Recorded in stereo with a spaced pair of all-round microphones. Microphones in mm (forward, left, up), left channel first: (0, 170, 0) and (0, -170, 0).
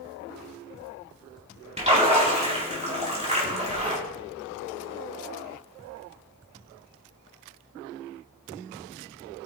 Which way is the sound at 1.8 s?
20° right (ahead or behind).